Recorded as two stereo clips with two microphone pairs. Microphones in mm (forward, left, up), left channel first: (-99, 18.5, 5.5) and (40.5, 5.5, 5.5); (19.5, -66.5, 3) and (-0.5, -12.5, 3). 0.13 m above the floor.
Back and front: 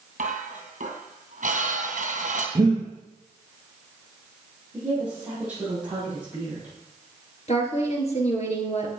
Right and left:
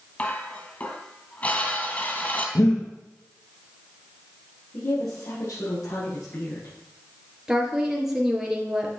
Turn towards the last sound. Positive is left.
turn(degrees=-170)